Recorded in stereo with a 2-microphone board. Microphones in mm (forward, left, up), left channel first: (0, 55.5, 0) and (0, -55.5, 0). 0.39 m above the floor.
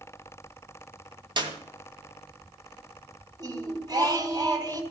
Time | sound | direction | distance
1.4 | a clap | 45° right (ahead or behind) | 2.5 m
3.4 | singing | 35° right (ahead or behind) | 3 m